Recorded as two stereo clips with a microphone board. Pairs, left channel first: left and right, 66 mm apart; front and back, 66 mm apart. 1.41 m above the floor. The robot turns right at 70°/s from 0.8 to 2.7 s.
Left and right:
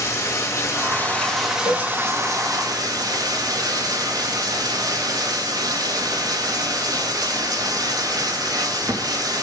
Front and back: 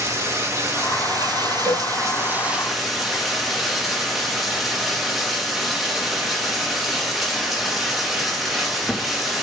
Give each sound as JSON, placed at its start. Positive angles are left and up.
{"t": 0.0, "sound": "running water", "azimuth_deg": 135, "distance_m": 2.5}
{"t": 1.6, "sound": "a cowbell", "azimuth_deg": -100, "distance_m": 6.0}